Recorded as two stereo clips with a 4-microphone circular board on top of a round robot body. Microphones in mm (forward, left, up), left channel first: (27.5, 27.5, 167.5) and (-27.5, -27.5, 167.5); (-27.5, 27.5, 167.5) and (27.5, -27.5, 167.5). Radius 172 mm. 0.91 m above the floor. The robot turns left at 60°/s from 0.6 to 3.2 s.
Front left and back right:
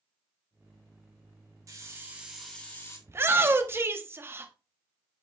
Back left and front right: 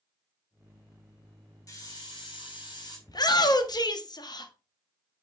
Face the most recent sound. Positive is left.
turn(degrees=165)